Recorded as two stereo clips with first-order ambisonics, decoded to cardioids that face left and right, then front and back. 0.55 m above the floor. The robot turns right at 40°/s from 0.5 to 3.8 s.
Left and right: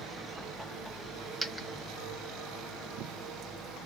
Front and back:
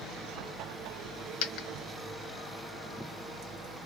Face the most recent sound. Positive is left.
turn(degrees=95)